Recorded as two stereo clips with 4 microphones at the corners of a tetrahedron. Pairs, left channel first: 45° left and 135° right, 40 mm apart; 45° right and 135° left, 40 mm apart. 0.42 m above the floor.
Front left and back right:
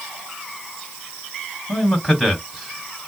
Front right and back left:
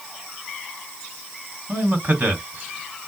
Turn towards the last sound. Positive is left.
turn(degrees=135)